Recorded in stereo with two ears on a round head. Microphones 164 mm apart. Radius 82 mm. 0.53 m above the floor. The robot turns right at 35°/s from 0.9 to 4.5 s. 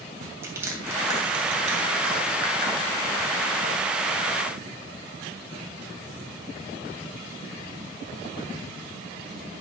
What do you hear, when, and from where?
0.4 s crushing: 15° right (ahead or behind), 2.5 m; by 3.2 s 75° right (ahead or behind), 2.5 m